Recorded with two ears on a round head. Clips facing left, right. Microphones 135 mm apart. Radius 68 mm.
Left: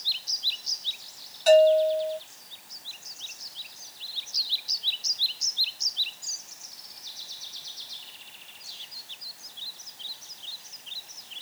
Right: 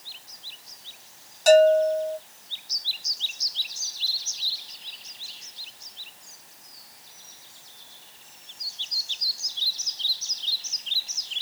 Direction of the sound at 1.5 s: 55° right (ahead or behind).